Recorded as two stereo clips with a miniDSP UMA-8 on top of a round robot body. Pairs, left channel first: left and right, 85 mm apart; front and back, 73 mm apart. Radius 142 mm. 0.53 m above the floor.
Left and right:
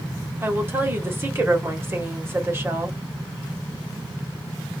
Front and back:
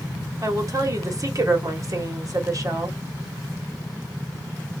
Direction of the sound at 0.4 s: 150° right.